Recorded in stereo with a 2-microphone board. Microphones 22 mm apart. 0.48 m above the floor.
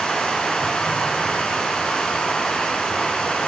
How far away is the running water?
About 5 m.